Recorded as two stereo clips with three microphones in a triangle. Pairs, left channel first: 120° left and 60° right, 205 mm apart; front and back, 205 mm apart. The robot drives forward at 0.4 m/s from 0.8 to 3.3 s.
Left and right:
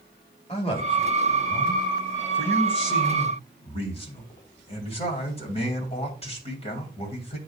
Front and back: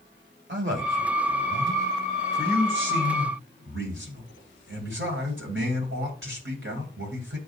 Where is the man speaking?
Straight behind, 2.5 m.